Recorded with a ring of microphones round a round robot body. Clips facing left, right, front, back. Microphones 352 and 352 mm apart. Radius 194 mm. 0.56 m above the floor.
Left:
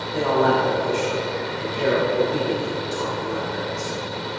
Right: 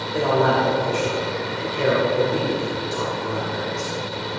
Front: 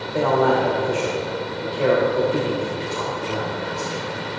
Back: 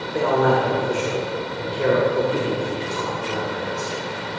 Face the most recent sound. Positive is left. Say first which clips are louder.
# even, even
turn(degrees=-120)